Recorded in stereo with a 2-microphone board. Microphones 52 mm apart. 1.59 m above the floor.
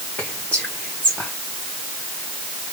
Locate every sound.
0.2 s whispering: 30° left (ahead or behind), 1.5 m